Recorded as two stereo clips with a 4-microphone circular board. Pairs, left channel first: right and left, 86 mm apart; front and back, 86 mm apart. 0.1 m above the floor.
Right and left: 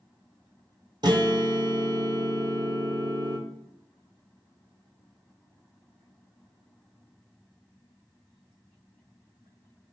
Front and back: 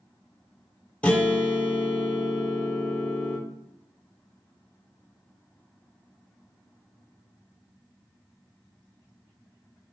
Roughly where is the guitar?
Left.